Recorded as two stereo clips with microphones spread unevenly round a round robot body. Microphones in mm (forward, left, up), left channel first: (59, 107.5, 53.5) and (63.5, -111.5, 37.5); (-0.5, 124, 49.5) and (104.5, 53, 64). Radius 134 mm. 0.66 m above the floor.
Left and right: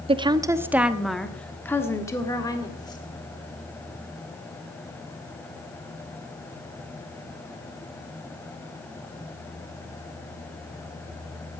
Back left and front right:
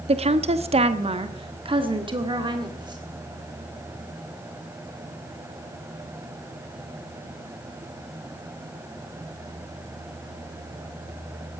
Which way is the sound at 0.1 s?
40° right.